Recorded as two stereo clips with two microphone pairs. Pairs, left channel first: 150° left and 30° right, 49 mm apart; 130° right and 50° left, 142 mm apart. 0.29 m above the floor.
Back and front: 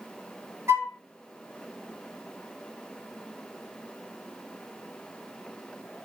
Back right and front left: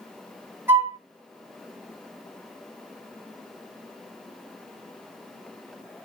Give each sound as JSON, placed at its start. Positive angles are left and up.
{"t": 0.7, "sound": "a flute", "azimuth_deg": -20, "distance_m": 1.5}